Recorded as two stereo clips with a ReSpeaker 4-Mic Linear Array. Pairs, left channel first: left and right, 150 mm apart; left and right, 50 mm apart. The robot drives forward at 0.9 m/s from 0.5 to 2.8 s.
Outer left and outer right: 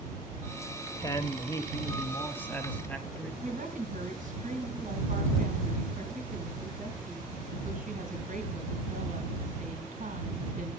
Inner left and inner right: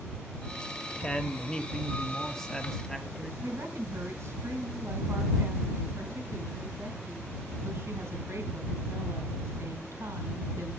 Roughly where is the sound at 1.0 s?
Left.